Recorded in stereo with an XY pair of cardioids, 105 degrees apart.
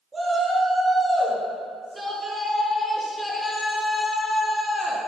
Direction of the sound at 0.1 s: 25° right.